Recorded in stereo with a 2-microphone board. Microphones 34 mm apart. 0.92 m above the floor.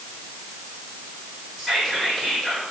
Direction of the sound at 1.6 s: Centre (ahead or behind).